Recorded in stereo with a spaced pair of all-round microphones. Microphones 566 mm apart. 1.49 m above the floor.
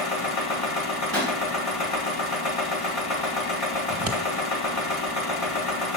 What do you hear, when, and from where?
0.0 s a machine running: 80° left, 1.6 m
1.1 s a pop: 40° right (ahead or behind), 2.5 m
3.9 s scissors: 60° right (ahead or behind), 1.4 m